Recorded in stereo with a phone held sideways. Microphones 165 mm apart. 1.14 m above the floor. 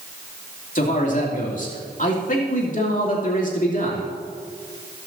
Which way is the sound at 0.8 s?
50° left (ahead or behind).